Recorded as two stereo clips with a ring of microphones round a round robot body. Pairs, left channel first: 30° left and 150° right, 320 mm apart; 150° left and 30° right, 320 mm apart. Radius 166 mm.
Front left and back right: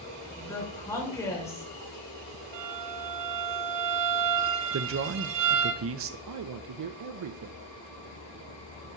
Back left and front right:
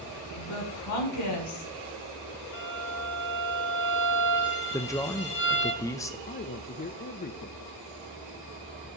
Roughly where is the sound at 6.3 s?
Behind right.